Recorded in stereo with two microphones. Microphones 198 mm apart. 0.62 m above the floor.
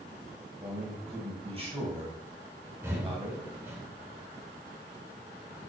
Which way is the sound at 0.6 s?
30° right (ahead or behind).